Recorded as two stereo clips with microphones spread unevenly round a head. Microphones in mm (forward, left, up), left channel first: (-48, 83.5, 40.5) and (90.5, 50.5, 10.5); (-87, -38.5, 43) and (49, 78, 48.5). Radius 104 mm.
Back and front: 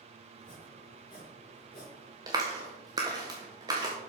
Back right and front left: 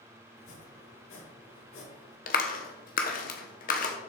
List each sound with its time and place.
0.4 s chopping: 120° right, 6 m
2.3 s a clap: 90° right, 1.3 m